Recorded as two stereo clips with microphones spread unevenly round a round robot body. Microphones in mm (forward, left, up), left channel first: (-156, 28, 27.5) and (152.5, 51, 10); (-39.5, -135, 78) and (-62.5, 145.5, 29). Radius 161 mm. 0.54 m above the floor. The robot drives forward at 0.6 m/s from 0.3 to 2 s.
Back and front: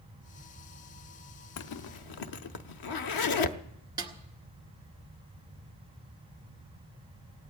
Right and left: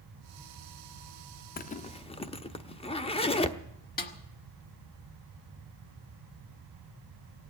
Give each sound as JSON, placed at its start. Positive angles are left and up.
{"t": 1.6, "sound": "a zipper", "azimuth_deg": -150, "distance_m": 0.6}
{"t": 4.0, "sound": "a snare drum", "azimuth_deg": -50, "distance_m": 1.4}